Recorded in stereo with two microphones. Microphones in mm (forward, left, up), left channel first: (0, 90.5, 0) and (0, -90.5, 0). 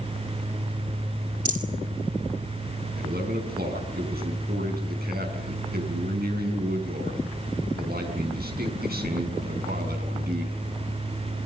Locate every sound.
1.4 s a rattle: 45° right (ahead or behind), 2.5 m
3.0 s a man speaking: 60° right (ahead or behind), 6 m